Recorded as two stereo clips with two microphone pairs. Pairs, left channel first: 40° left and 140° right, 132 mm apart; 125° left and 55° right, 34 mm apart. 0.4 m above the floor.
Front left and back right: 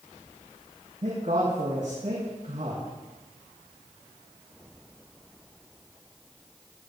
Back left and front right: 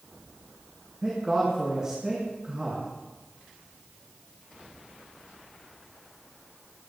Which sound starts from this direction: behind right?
A man speaking, at 1.0 s.